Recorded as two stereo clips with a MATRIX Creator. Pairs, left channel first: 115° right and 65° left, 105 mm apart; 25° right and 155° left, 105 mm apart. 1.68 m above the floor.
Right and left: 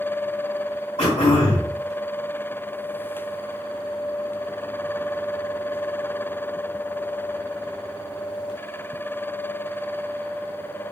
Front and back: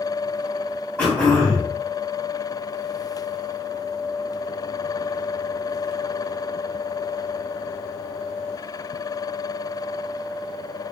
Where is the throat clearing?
105° right, 3 m.